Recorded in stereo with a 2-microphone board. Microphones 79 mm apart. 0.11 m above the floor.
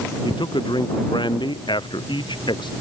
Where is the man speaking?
85° left.